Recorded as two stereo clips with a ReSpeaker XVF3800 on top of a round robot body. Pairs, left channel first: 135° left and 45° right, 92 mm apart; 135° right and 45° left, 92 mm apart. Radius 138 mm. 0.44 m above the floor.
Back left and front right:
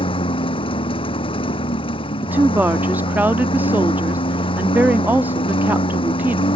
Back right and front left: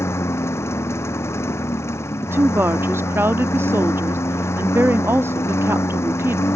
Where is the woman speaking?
10° left.